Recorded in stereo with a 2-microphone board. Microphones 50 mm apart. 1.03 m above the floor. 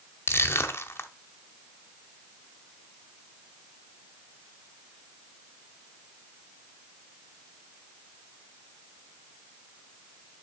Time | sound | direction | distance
0.3 | crushing | 55° left (ahead or behind) | 1.1 m